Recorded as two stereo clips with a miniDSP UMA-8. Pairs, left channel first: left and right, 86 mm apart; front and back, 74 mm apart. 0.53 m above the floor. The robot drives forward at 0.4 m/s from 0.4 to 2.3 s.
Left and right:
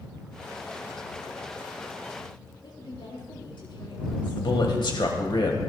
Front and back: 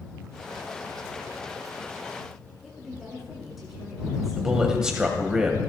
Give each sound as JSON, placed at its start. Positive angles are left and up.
{"t": 2.6, "sound": "a woman speaking", "azimuth_deg": 95, "distance_m": 6.0}
{"t": 4.4, "sound": "a man speaking", "azimuth_deg": 100, "distance_m": 2.0}